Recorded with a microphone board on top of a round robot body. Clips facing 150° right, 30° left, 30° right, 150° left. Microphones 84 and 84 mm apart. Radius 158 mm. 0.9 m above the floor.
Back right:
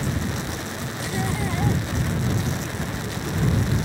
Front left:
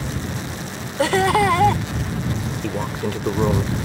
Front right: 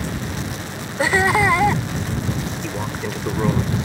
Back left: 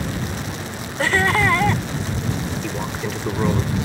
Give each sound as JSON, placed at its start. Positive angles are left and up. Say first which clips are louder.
{"t": 1.0, "sound": "laughter", "louder": "front left 12 dB, front right 1 dB", "azimuth_deg": 50}
{"t": 2.6, "sound": "a man speaking", "louder": "front left 5 dB, even", "azimuth_deg": 60}